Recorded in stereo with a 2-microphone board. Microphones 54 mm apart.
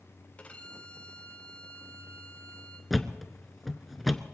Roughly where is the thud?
Centre.